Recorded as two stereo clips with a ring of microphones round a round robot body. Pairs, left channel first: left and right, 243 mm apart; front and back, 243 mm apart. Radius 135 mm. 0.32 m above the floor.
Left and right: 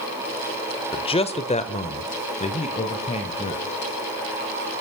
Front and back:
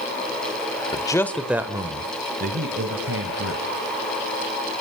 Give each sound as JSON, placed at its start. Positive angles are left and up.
{"t": 0.9, "sound": "a man speaking", "azimuth_deg": 45, "distance_m": 1.1}